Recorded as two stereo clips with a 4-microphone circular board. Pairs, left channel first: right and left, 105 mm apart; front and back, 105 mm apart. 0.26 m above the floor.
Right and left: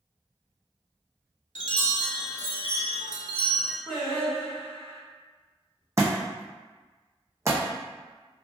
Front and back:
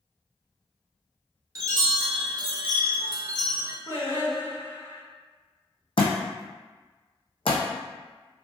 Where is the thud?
30° left, 0.8 m.